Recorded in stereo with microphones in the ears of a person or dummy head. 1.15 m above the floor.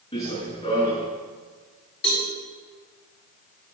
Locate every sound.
0.1 s running footsteps: 30° left (ahead or behind), 5.5 m
2.0 s a cowbell: 55° left (ahead or behind), 5.5 m